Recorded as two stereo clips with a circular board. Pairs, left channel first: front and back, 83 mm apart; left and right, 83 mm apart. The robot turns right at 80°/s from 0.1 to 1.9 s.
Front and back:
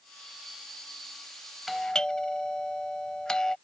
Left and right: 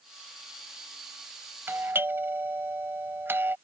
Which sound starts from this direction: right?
A doorbell, at 1.7 s.